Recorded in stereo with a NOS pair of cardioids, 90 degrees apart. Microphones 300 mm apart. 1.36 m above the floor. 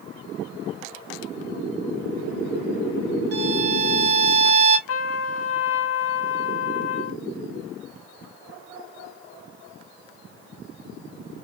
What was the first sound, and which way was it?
A violin, 35° right.